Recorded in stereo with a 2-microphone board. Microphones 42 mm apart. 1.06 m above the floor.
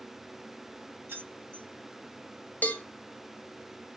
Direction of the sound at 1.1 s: 70° right (ahead or behind).